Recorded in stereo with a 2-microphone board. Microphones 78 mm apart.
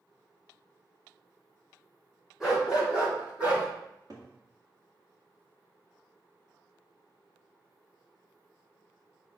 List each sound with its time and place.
2.4 s a dog barking: 10° right (ahead or behind), 3.5 m; by 3.7 s 20° right (ahead or behind), 3.5 m
3.9 s a cupboard door: 50° right (ahead or behind), 1.8 m